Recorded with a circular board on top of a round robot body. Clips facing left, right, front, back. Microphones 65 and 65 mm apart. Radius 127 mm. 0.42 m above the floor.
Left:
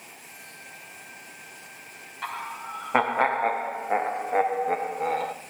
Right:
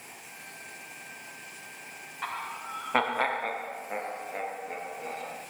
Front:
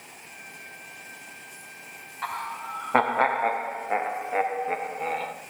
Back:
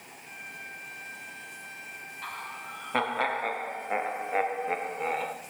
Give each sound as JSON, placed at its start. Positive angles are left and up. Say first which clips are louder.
{"t": 2.2, "sound": "laughter", "louder": "left 2 dB, front 8 dB", "azimuth_deg": -5, "distance_m": 1.1}